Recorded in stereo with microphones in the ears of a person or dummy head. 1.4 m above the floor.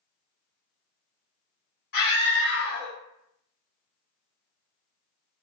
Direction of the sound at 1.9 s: 60° left (ahead or behind).